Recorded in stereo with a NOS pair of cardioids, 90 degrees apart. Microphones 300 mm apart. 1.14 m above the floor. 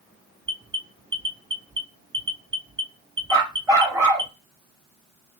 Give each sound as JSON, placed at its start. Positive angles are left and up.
{"t": 0.5, "sound": "an alarm", "azimuth_deg": -15, "distance_m": 1.6}
{"t": 3.3, "sound": "a dog barking", "azimuth_deg": -10, "distance_m": 3.0}